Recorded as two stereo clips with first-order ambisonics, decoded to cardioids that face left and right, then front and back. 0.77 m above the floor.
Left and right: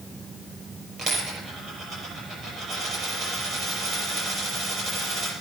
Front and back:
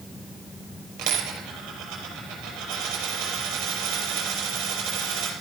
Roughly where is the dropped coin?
Behind right.